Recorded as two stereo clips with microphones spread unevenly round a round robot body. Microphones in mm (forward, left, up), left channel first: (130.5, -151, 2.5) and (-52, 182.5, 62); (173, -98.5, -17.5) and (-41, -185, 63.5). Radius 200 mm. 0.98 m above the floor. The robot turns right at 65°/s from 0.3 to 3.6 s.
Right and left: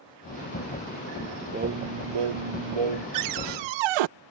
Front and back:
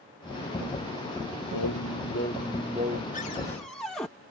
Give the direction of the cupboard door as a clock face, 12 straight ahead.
10 o'clock.